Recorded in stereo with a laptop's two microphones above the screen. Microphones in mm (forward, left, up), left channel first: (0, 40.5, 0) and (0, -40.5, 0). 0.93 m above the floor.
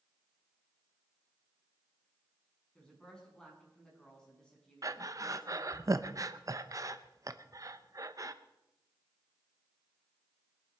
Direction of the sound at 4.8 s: 45° right (ahead or behind).